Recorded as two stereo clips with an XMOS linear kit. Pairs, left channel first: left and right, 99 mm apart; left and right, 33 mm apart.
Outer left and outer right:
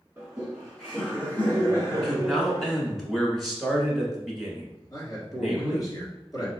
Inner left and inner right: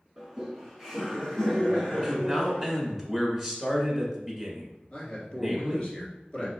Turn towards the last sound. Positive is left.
turn(degrees=40)  # may be behind; listen again after turning